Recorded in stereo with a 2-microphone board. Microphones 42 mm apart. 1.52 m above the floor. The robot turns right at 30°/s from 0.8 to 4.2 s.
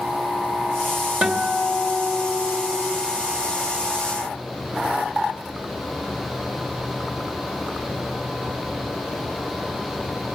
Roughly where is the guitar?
Ahead right.